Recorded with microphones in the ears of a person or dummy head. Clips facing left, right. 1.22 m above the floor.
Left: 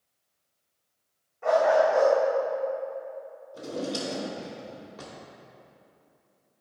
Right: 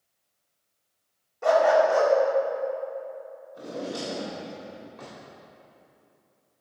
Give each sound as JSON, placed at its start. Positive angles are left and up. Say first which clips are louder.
{"t": 1.4, "sound": "a dog barking", "louder": "right 2 dB", "side_deg": -55, "distance_m": 1.3}
{"t": 3.5, "sound": "a drawer", "louder": "left 2 dB", "side_deg": 50, "distance_m": 2.5}